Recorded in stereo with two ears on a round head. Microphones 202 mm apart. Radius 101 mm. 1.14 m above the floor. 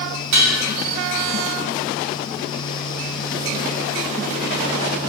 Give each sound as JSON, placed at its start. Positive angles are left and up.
{"t": 0.3, "sound": "dishes clattering", "side_deg": -85, "distance_m": 1.2}